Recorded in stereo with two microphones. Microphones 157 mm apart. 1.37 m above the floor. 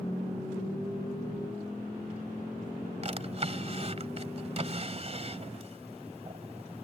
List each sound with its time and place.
3.0 s a drawer: 40° right (ahead or behind)